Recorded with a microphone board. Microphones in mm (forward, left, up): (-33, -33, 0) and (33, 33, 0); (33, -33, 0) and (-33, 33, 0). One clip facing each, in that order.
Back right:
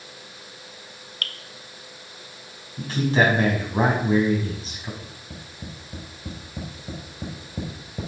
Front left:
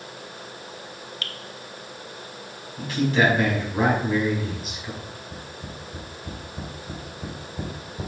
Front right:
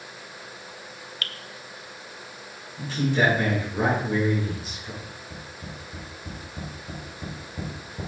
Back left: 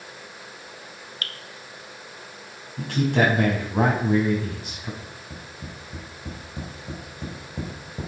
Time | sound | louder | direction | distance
1.2 | dripping | back right 3 dB, front right 1 dB | 175° right | 0.7 m
2.8 | a man speaking | even, back left 2 dB | 165° left | 4.5 m
5.0 | tapping | front left 4 dB, even | 160° right | 6 m